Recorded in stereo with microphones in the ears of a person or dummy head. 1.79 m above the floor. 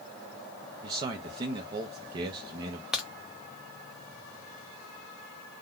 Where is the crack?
5° right (ahead or behind), 0.6 m.